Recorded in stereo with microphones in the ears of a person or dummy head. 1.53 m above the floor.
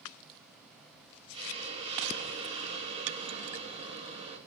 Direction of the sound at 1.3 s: 30° right (ahead or behind).